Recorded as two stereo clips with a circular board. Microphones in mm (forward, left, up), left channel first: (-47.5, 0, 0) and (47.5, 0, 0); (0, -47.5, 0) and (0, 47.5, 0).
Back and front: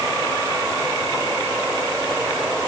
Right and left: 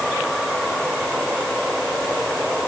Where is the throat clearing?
I don't hear throat clearing.